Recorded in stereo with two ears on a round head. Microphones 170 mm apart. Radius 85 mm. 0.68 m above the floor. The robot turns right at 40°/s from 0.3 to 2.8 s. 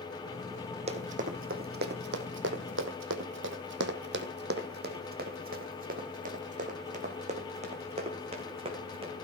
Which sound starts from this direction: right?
Running footsteps, at 0.9 s.